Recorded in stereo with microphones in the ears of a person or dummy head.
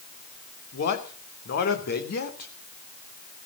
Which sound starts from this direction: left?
A man speaking, at 0.7 s.